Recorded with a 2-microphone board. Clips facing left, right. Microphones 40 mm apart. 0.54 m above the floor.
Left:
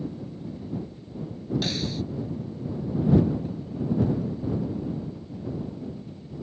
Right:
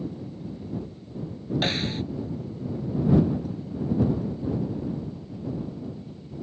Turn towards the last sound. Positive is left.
turn(degrees=-35)  # may be behind; listen again after turning